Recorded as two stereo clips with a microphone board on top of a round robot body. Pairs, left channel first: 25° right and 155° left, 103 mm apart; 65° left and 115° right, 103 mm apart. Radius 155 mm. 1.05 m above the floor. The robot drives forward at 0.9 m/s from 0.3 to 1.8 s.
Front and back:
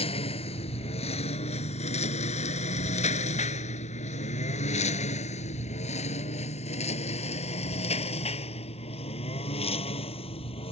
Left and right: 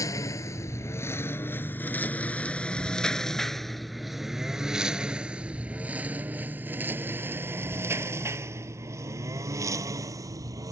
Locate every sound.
0.0 s a lawn mower: 10° left; by 10.7 s 55° right